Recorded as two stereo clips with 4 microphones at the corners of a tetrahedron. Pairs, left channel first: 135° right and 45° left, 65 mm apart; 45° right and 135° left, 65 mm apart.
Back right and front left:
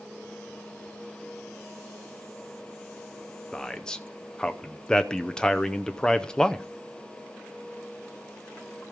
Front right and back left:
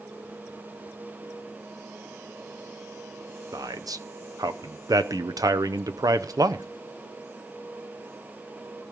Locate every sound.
3.5 s a man speaking: 150° left, 0.8 m